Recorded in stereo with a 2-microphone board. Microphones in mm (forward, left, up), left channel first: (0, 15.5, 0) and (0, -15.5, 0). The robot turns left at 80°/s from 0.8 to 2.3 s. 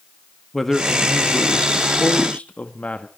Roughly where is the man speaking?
Behind.